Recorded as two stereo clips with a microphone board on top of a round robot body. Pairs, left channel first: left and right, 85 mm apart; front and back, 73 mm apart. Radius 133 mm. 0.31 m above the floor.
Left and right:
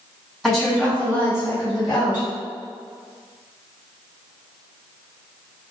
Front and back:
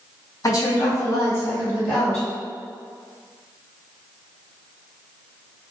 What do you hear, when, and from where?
0.4 s a woman speaking: straight ahead, 1.7 m; by 2.3 s 75° left, 2 m